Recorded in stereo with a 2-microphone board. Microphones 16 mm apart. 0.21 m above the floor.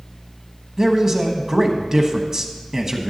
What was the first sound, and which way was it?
A man speaking, 35° right (ahead or behind).